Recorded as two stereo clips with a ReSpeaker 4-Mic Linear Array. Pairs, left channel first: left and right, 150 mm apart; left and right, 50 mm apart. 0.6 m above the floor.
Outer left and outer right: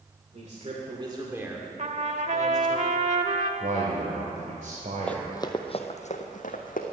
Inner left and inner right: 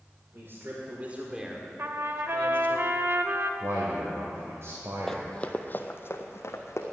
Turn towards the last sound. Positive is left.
turn(degrees=65)  # may be behind; listen again after turning